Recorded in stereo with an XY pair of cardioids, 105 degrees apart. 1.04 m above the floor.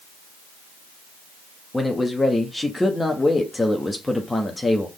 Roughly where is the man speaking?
Ahead.